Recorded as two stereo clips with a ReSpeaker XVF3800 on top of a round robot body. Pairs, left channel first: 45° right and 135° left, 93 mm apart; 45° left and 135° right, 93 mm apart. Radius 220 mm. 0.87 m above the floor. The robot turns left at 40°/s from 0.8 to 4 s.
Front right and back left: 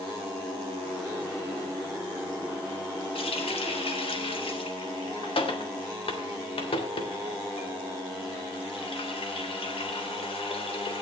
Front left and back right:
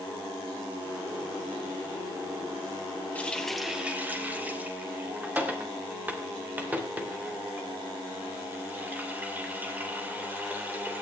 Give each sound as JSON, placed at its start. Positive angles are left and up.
{"t": 3.1, "sound": "a running tap", "azimuth_deg": -30, "distance_m": 3.0}